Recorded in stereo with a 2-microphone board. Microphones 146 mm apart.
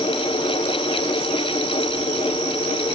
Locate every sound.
Only background noise.